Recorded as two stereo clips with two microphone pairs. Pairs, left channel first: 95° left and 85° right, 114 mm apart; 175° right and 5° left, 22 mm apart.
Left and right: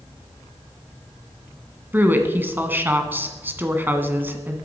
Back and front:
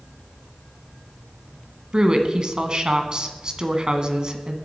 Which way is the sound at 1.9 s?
25° right.